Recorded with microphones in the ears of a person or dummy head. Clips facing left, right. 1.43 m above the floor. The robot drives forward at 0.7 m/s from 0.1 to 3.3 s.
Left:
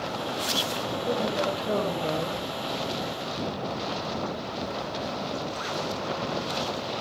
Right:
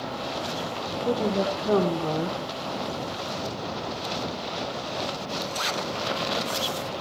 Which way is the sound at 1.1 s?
75° right (ahead or behind).